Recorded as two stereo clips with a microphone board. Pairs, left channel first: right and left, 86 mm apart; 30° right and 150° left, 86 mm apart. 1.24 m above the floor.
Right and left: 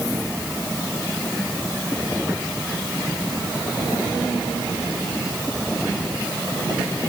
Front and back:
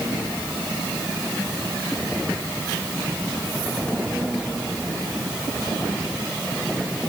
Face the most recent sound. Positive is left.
No sound to turn to.